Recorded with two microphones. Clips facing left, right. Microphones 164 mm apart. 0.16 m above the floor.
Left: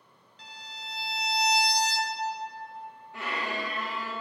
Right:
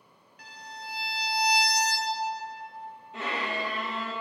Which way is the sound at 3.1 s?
20° right (ahead or behind).